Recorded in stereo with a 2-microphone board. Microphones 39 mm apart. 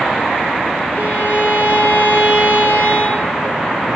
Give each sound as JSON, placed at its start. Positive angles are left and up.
{"t": 0.9, "sound": "a violin", "side_deg": 70, "distance_m": 2.5}